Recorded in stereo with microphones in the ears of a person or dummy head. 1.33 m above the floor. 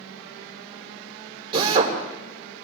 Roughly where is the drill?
Right.